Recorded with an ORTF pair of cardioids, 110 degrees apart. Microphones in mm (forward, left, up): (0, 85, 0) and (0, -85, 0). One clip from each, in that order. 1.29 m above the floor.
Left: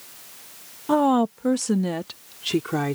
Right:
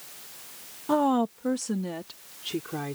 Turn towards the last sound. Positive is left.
turn(degrees=50)